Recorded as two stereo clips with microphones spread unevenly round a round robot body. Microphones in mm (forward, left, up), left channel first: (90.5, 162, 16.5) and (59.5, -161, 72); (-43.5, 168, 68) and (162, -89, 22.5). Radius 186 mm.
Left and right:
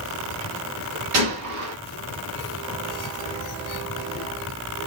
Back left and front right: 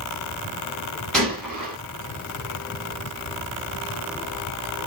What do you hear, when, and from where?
1.1 s a gunshot: 145° right, 0.5 m